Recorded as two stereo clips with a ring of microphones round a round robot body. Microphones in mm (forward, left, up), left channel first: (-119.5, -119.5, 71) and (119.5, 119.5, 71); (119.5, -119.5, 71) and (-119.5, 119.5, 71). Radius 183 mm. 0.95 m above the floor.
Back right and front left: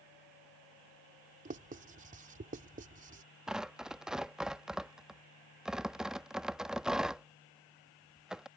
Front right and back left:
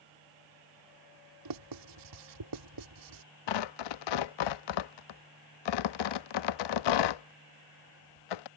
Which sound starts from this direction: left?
Writing, at 1.4 s.